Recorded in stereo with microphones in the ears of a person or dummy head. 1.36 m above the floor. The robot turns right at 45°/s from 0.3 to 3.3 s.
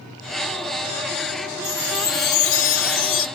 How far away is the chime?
About 1.3 m.